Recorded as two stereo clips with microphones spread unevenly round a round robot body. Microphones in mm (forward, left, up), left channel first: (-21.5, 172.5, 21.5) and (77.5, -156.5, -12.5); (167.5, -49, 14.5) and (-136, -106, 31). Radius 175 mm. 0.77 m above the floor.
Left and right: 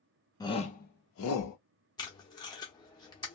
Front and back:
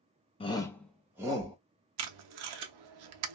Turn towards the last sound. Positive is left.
turn(degrees=-175)